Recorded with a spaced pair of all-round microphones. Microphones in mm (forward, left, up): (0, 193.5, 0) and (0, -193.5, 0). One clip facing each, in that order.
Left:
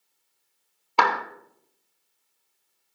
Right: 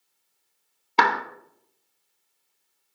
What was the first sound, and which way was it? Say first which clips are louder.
A clap: right 1 dB; 30° right (ahead or behind).